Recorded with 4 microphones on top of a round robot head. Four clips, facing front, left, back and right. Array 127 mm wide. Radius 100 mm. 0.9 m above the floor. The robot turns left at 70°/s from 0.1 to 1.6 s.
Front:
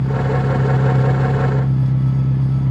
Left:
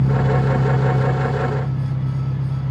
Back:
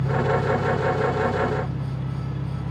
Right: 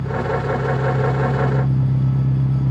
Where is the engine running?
55° left, 1.6 m; by 2.7 s 50° right, 1.6 m.